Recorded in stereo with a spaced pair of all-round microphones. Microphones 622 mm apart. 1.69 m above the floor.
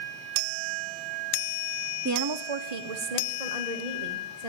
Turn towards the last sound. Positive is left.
turn(degrees=-80)